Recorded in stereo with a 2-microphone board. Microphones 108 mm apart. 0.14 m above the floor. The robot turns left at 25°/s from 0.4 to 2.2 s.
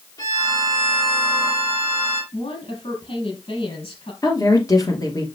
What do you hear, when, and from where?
0.2 s a violin: 140° left, 2 m; by 2.2 s 95° left, 2 m
2.3 s a woman speaking: 60° left (ahead or behind), 3.5 m
4.2 s a woman speaking: 35° left (ahead or behind), 2.5 m